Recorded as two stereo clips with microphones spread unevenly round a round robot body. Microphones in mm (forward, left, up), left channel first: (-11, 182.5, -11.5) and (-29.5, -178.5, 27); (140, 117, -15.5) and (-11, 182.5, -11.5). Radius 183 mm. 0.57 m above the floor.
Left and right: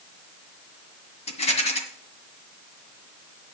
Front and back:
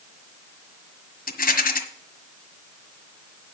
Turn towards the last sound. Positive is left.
turn(degrees=15)